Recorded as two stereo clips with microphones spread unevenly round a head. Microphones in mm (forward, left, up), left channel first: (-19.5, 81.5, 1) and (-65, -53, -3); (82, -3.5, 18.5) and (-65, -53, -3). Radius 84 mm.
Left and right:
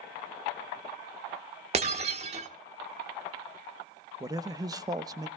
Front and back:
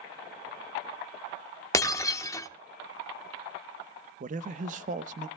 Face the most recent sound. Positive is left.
turn(degrees=-165)